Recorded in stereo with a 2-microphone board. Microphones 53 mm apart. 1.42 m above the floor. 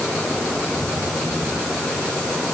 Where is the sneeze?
No sneeze in this recording.